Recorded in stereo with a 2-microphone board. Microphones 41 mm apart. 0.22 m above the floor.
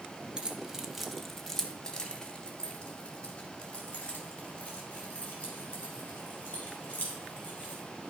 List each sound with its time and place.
0.4 s keys jangling: 20° right (ahead or behind), 0.7 m; by 7.8 s 35° left (ahead or behind), 4 m